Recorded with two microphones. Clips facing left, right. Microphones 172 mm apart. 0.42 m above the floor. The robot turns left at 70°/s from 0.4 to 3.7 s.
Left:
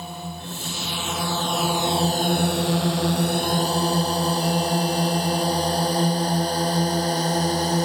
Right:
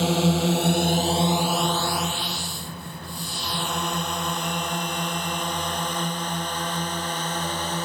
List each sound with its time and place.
0.0 s a drone: 80° right; by 7.9 s 35° left (ahead or behind)